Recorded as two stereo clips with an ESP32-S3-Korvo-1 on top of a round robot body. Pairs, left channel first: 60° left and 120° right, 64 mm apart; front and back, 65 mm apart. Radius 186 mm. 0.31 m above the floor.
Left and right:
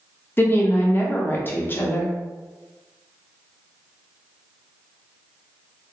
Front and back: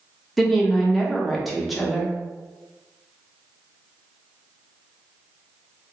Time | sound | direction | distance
0.4 | a woman speaking | 90° left | 1.0 m